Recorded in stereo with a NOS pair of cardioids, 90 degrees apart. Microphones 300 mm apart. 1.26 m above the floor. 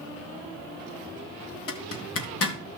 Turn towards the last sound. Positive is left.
turn(degrees=50)